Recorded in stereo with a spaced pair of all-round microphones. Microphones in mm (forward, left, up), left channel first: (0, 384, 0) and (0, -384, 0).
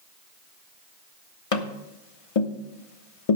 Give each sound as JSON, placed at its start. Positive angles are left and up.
{"t": 1.5, "sound": "tapping", "side_deg": 45, "distance_m": 1.2}